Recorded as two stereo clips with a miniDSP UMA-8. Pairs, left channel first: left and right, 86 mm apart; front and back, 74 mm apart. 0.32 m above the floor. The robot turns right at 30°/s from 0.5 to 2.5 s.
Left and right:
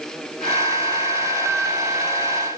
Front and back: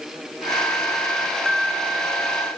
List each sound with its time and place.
Only background noise.